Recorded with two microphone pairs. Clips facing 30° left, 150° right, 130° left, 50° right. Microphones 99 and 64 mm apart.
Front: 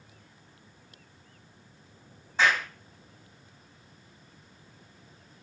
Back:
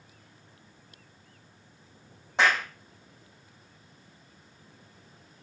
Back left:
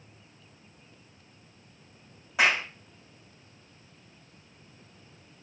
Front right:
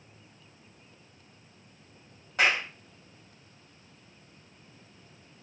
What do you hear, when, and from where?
2.4 s a clap: 145° right, 5.5 m